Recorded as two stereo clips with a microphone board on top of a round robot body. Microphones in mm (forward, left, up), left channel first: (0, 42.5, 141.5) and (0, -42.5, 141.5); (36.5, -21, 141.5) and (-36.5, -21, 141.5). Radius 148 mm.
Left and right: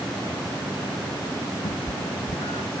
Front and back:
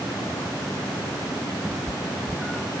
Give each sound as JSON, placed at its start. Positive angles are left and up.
{"t": 1.6, "sound": "a cat meowing", "azimuth_deg": 90}